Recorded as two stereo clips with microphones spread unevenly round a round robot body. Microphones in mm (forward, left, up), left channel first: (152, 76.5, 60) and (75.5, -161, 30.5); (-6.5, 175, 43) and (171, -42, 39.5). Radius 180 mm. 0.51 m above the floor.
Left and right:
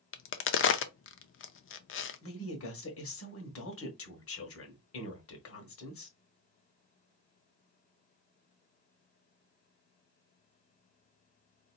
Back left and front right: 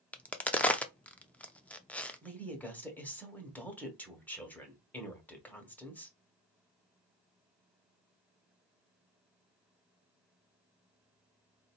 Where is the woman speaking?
45° left, 1.5 m.